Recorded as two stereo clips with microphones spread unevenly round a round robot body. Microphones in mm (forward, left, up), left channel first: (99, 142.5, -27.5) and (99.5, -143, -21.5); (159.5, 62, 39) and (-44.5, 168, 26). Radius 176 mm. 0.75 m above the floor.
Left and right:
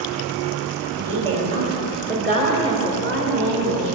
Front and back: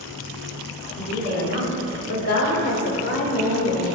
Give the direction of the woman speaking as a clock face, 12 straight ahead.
1 o'clock.